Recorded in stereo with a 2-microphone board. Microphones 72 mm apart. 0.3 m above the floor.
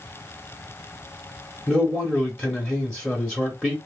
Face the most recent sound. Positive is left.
turn(degrees=10)  # may be behind; listen again after turning